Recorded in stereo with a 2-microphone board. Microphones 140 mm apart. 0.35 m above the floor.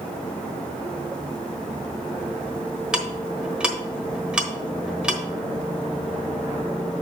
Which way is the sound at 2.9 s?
5° right (ahead or behind).